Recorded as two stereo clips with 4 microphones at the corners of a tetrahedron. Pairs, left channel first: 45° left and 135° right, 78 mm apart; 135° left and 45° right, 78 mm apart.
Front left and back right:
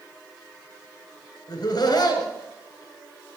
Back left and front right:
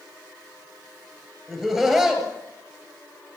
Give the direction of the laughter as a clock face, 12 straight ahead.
11 o'clock.